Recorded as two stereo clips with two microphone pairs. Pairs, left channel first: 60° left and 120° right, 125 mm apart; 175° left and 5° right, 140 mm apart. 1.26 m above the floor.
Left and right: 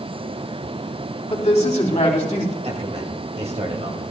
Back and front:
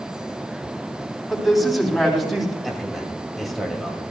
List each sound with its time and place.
1.3 s a man speaking: 85° left, 3 m
2.6 s a man speaking: 95° right, 2.5 m